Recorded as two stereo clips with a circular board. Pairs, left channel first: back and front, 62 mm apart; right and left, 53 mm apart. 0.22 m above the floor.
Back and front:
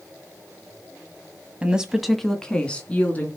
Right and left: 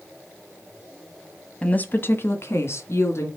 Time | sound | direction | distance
1.6 | a woman speaking | 50° right | 1.3 m